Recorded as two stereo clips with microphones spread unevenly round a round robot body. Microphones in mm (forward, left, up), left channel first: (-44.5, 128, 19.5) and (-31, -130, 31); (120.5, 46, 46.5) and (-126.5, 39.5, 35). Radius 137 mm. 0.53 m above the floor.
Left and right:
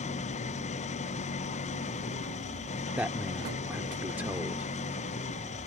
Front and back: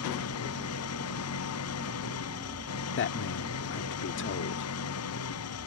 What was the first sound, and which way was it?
An engine running, 25° left.